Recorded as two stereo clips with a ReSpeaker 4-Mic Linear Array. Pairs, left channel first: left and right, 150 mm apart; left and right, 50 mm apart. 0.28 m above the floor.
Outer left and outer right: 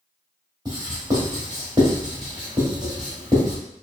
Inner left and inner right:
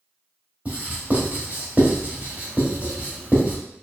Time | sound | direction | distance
0.7 | writing | 30° right (ahead or behind) | 1.5 m